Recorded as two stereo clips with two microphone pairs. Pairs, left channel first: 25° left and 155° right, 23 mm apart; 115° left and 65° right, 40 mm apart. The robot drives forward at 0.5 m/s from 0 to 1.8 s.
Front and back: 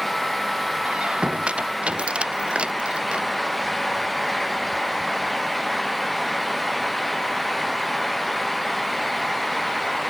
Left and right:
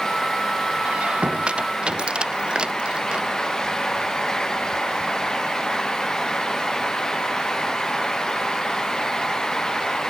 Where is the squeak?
115° right; by 3.3 s 125° right.